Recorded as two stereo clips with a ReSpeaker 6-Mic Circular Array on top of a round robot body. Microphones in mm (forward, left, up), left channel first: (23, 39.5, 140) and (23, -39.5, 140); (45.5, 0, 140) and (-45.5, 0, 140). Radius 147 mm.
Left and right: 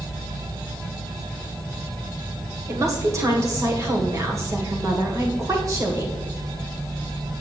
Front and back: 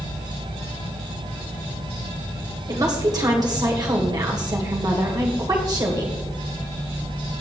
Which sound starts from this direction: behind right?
A woman speaking, at 2.7 s.